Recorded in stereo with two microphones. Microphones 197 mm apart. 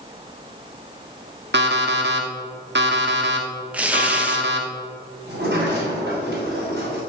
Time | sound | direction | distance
1.5 | an alarm clock | 65° right (ahead or behind) | 1.4 m
3.7 | tearing paper | 5° right (ahead or behind) | 1.1 m
5.3 | a sliding door | 60° right (ahead or behind) | 4.5 m